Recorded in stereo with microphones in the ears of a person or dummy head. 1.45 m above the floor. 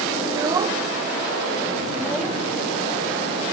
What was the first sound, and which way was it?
A child speaking, 30° right (ahead or behind).